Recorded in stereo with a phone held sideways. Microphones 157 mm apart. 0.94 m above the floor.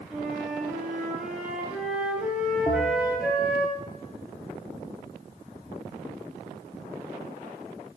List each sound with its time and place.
0.1 s a flute: 5° right (ahead or behind), 1.9 m
2.7 s a bell: 40° left (ahead or behind), 0.8 m